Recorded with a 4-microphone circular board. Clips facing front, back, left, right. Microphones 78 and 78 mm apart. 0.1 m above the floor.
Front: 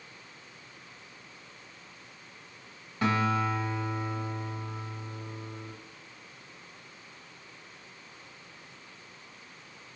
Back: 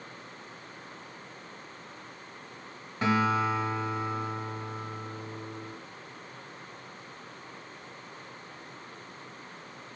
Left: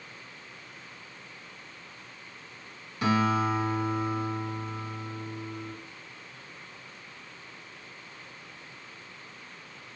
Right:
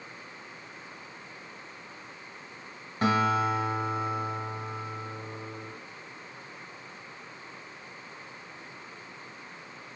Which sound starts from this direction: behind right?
A guitar, at 3.0 s.